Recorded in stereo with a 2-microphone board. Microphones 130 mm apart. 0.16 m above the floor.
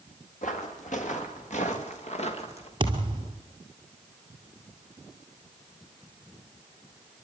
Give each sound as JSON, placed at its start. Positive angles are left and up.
{"t": 0.4, "sound": "footsteps", "side_deg": 75, "distance_m": 4.5}
{"t": 2.8, "sound": "a thud", "side_deg": -40, "distance_m": 1.9}